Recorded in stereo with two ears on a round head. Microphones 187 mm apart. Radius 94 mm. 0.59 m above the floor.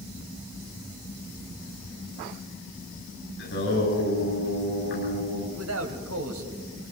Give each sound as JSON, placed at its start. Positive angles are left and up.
{"t": 3.4, "sound": "singing", "side_deg": 55, "distance_m": 9.5}
{"t": 5.5, "sound": "a man speaking", "side_deg": -75, "distance_m": 3.0}